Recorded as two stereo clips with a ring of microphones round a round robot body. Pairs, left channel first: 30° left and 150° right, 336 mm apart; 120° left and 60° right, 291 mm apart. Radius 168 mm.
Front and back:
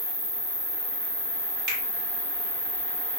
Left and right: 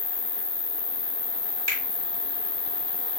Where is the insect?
Straight behind, 0.7 m.